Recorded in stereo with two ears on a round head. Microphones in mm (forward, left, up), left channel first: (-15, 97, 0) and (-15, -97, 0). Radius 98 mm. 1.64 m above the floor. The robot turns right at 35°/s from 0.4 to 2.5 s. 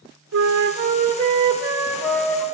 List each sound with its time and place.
0.3 s a flute: 60° right, 1.0 m; by 2.5 s 15° left, 1.0 m